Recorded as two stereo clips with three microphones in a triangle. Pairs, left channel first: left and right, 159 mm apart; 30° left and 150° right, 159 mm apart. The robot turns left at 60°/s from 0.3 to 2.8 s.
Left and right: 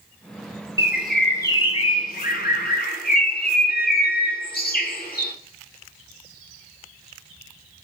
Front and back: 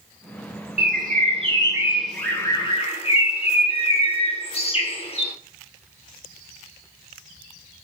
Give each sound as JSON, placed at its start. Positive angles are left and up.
{"t": 0.8, "sound": "a bird", "azimuth_deg": -160, "distance_m": 1.0}